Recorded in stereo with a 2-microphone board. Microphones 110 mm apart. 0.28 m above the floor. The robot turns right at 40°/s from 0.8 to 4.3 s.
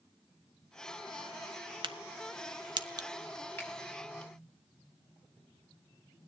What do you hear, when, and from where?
1.8 s a crack: 45° right (ahead or behind), 0.6 m; by 3.1 s 35° right (ahead or behind), 0.6 m
3.6 s a finger snap: 10° left (ahead or behind), 6 m; by 3.7 s 5° left (ahead or behind), 6 m